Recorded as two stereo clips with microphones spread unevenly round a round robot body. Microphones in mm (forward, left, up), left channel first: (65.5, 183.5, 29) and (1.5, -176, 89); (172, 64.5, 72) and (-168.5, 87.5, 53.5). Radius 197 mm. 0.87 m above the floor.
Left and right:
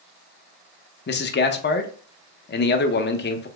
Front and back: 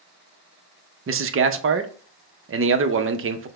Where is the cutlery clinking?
I don't hear cutlery clinking.